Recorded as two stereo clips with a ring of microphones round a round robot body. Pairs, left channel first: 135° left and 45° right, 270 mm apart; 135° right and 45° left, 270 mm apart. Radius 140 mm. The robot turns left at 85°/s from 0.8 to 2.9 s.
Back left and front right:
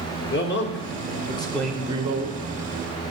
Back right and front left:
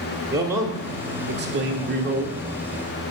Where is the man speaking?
120° left, 1.1 m; by 2.4 s 20° right, 1.1 m.